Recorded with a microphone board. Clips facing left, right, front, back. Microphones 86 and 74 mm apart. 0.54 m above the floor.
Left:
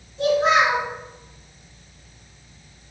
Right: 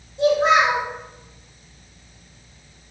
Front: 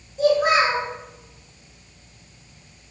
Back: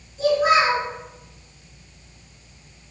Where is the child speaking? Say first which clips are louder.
Right 1 dB, even; 20° right, 1.8 m.